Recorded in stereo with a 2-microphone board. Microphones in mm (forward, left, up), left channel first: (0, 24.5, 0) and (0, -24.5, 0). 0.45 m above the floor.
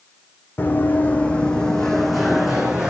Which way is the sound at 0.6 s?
40° left (ahead or behind).